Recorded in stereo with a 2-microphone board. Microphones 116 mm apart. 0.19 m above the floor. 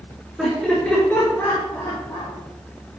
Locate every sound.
0.4 s laughter: centre (ahead or behind), 3 m; by 2.3 s 35° left (ahead or behind), 4.5 m